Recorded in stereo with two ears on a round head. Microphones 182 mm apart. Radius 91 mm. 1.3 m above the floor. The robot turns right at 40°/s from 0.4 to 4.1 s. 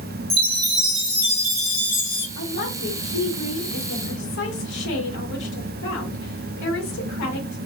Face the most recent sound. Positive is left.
turn(degrees=115)